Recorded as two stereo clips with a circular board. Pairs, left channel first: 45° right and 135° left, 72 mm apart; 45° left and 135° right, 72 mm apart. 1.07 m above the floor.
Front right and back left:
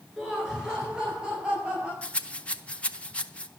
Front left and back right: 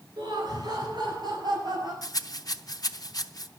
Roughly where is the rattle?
Ahead left.